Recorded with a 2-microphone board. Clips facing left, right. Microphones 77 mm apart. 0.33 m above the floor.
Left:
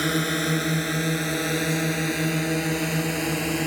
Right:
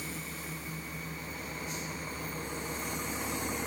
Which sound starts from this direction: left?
A drone, at 0.0 s.